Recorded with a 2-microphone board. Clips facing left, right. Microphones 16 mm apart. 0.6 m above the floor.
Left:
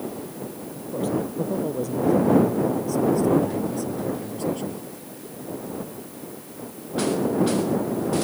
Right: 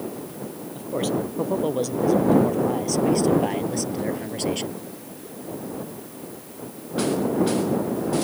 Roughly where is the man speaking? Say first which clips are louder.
Right 1 dB; right.